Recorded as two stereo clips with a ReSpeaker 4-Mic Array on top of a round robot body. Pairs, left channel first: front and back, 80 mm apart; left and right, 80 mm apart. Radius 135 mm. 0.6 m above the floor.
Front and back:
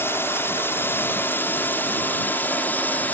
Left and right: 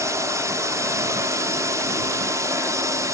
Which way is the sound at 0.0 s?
55° right.